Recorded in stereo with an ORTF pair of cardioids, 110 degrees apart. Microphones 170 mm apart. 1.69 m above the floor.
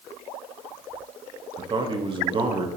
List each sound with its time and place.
1.6 s a man speaking: 30° right, 0.8 m